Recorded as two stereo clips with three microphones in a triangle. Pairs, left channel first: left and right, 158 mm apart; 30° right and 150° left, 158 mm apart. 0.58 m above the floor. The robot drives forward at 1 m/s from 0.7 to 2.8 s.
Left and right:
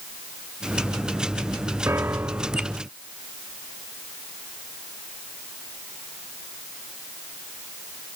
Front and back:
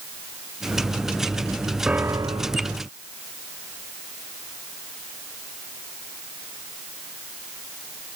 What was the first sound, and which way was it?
A piano, 135° right.